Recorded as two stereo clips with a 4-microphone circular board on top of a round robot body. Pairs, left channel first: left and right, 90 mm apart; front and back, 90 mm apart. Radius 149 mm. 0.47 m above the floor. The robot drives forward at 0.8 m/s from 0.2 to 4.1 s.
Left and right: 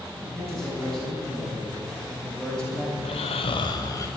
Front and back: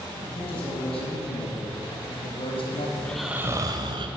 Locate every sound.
0.2 s a man speaking: 5° left, 6 m; by 2.9 s 10° left, 3.5 m
3.0 s snoring: 70° left, 0.5 m; by 4.1 s 145° left, 0.8 m